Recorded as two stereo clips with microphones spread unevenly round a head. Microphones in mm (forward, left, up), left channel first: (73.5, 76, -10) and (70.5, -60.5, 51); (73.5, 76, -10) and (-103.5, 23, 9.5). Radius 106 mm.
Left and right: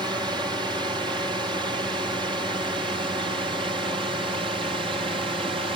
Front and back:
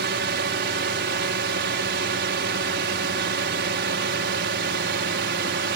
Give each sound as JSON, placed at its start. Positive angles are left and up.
{"t": 0.0, "sound": "a drone", "azimuth_deg": -170}